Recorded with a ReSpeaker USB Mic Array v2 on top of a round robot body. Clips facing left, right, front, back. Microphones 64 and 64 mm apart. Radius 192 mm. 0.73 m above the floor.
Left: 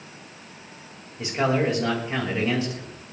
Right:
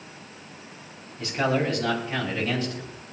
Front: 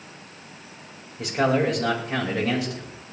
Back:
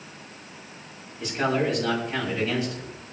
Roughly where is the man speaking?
Ahead.